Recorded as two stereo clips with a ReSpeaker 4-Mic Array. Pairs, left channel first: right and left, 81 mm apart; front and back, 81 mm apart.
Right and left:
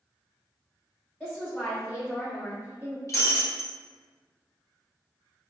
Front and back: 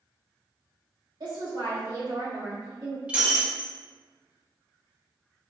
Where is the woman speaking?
175° right, 1.5 m; by 3.0 s 155° left, 2 m.